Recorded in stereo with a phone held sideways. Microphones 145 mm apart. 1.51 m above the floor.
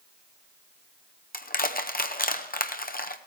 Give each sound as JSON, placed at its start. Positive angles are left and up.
{"t": 1.3, "sound": "crushing", "side_deg": 85, "distance_m": 0.7}